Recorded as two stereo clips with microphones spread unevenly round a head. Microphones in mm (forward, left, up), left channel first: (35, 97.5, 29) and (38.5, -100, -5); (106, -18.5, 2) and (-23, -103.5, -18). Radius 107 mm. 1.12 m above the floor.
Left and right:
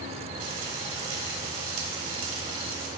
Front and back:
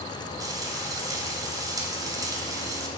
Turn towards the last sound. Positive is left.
turn(degrees=-80)